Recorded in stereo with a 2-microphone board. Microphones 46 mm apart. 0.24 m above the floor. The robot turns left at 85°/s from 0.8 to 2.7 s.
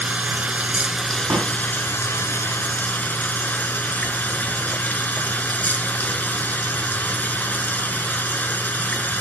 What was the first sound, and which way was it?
Running water, 150° right.